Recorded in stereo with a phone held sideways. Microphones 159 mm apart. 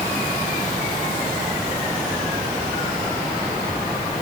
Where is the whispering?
No whispering in this recording.